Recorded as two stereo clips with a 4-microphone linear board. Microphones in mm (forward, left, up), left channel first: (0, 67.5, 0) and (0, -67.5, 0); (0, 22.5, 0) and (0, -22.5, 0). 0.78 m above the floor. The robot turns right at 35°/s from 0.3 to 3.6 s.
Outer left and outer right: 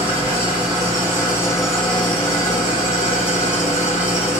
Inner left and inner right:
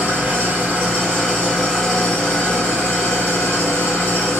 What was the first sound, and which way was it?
An engine running, 50° right.